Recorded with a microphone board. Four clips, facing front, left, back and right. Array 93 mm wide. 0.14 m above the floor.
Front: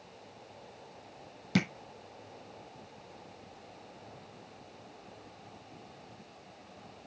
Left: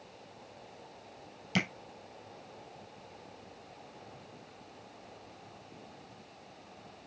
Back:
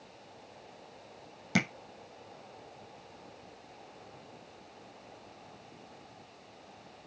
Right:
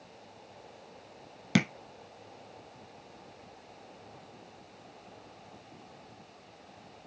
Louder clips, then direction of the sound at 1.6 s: Right 5 dB, even; 95° right.